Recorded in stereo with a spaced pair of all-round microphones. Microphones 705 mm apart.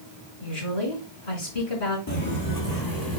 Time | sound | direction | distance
0.4 | a woman speaking | 45° left (ahead or behind) | 4.5 m
2.1 | footsteps | 20° left (ahead or behind) | 1.8 m